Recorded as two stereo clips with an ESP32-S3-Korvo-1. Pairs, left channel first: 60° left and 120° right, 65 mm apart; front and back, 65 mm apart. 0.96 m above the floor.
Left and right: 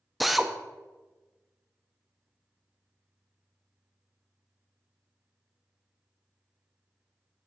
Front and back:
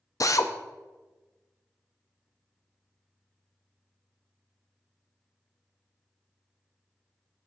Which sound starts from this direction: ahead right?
A drill, at 0.2 s.